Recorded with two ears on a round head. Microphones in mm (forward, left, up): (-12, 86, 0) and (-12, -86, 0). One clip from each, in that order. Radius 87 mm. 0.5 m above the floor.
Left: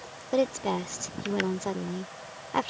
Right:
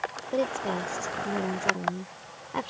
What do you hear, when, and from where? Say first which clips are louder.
0.3 s a woman speaking: left 3 dB; 20° left (ahead or behind)